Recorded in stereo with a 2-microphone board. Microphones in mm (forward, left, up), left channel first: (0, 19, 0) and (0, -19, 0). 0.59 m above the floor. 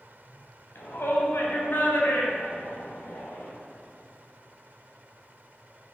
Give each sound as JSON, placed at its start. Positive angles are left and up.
{"t": 0.8, "sound": "a shout", "side_deg": 70, "distance_m": 4.0}